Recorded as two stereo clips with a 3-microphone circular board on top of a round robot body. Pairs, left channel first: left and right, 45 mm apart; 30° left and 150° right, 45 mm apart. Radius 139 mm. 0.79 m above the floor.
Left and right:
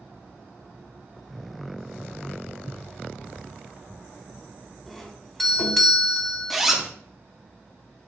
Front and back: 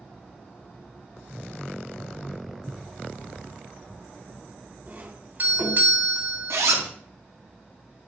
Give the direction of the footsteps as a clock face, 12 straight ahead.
8 o'clock.